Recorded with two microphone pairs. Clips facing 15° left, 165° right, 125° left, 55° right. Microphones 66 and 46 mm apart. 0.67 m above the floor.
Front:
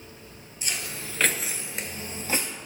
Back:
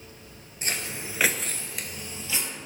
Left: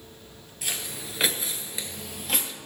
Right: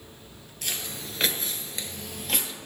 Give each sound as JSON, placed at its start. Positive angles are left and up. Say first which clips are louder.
{"t": 0.6, "sound": "footsteps", "louder": "back 2 dB, even", "azimuth_deg": -155, "distance_m": 0.9}